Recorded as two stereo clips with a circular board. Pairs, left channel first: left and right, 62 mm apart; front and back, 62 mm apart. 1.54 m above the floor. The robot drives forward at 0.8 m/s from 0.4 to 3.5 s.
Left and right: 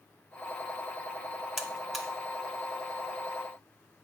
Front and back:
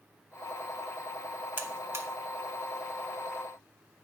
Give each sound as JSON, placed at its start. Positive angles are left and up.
{"t": 1.6, "sound": "a buzzer", "azimuth_deg": -170, "distance_m": 0.8}